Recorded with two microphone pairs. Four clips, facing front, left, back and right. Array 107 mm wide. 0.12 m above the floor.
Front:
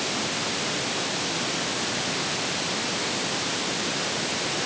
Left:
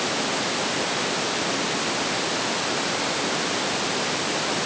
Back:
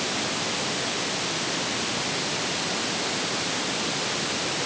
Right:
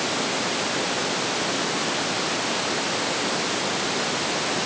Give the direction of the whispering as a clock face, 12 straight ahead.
I don't hear whispering.